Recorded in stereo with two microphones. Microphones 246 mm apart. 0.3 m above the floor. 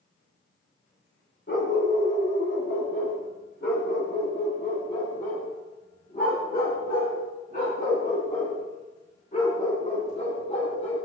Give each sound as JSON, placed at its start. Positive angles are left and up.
{"t": 1.5, "sound": "a dog barking", "side_deg": 45, "distance_m": 7.5}